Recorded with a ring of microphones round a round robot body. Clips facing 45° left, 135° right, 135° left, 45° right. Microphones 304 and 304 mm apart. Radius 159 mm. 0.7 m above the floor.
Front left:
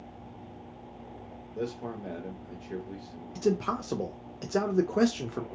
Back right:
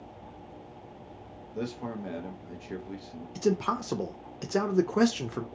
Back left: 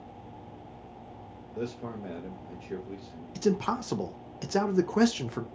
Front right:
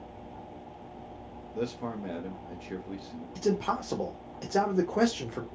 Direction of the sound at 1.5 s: 110° right.